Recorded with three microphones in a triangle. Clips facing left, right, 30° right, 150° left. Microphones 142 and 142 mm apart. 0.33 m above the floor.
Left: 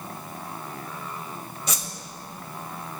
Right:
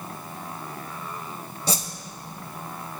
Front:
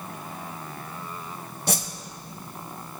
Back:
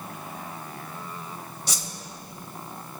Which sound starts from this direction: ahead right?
A whoosh, at 1.7 s.